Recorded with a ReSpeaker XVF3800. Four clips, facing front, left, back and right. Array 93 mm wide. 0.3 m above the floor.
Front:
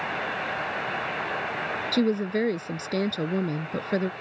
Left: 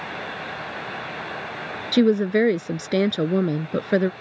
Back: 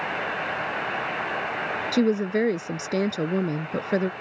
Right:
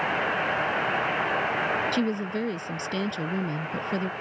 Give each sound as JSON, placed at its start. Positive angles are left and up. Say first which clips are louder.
{"t": 1.9, "sound": "a woman speaking", "louder": "left 9 dB, back 2 dB", "azimuth_deg": 100}